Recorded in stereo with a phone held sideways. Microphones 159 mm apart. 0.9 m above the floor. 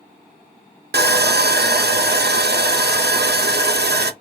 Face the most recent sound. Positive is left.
turn(degrees=-85)